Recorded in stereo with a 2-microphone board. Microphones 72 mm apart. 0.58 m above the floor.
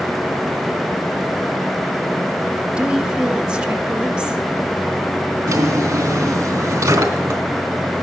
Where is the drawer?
55° right (ahead or behind), 3 m.